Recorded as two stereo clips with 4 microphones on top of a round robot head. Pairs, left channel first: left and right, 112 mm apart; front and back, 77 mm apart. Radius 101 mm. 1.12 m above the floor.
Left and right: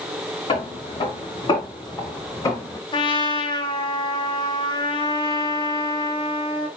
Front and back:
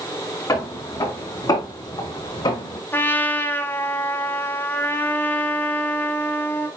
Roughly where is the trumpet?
Ahead left.